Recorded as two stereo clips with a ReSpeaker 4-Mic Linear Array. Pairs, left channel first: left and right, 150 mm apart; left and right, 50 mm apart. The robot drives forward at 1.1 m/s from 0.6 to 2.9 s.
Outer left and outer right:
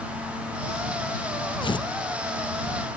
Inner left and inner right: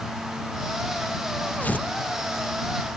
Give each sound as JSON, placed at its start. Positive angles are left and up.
{"t": 1.6, "sound": "tearing paper", "side_deg": 35}